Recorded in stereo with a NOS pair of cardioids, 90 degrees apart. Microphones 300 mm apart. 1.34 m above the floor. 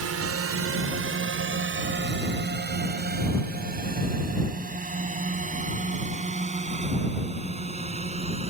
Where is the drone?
55° right; by 8.5 s 20° right.